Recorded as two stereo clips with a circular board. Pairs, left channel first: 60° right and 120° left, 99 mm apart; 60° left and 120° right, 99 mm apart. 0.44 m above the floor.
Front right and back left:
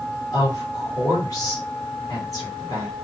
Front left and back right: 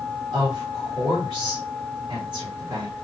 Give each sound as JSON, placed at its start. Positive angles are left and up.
{"t": 0.3, "sound": "a woman speaking", "azimuth_deg": -100, "distance_m": 1.3}